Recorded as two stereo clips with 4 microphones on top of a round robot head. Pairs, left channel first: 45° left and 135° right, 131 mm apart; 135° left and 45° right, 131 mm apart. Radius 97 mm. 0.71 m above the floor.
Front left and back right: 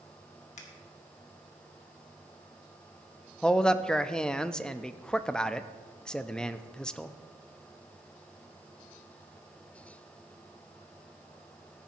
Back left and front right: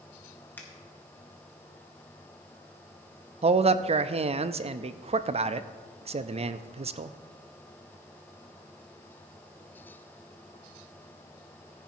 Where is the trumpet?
I don't hear a trumpet.